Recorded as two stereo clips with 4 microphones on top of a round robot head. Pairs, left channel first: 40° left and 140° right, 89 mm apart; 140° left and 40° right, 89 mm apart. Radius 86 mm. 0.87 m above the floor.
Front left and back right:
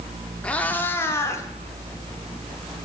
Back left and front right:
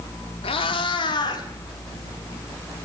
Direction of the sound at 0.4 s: 120° left.